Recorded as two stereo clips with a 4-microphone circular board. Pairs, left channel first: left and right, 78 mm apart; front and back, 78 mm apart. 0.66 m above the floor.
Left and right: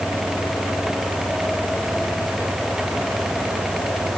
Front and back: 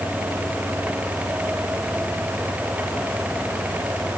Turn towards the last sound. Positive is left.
No sound to turn to.